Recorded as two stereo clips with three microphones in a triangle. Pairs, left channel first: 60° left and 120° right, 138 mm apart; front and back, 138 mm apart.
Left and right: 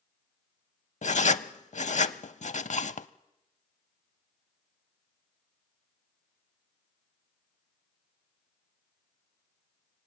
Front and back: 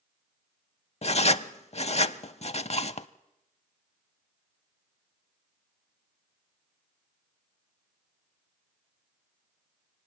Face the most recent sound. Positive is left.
turn(degrees=35)